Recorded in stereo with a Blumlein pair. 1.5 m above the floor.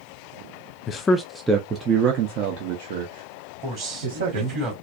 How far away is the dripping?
No dripping in this recording.